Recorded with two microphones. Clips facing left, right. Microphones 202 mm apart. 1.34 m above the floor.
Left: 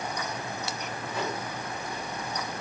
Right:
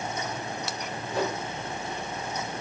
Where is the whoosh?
40° right (ahead or behind), 6.5 m.